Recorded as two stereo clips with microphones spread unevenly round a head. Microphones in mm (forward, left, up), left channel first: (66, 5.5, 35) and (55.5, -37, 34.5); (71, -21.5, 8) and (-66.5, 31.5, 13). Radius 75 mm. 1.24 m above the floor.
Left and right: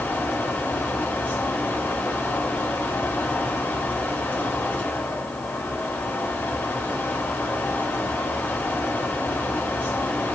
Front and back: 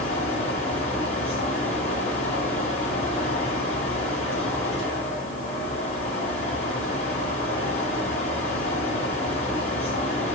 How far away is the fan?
About 7.5 m.